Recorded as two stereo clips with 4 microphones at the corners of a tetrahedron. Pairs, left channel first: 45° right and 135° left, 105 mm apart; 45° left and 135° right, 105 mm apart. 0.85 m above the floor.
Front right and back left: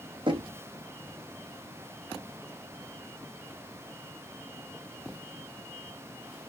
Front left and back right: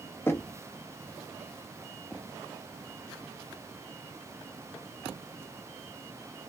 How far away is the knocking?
About 1.0 m.